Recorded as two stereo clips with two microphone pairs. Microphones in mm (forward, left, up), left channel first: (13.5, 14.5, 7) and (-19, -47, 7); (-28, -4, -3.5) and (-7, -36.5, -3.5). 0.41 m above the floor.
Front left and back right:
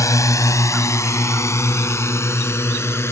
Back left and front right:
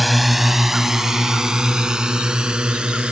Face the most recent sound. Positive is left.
turn(degrees=10)